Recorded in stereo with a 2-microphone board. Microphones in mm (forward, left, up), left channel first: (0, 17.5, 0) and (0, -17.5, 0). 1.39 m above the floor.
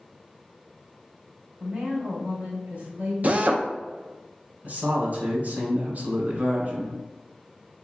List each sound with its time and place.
1.6 s a woman speaking: 70° right (ahead or behind), 1.9 m
3.2 s a drill: 50° right (ahead or behind), 0.5 m
4.6 s a man speaking: 55° right (ahead or behind), 1.7 m